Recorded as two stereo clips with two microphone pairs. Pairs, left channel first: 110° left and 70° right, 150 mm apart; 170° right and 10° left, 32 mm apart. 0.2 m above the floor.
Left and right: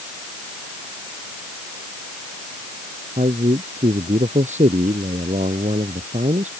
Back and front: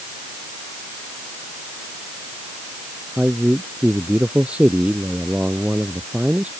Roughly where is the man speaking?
Ahead right.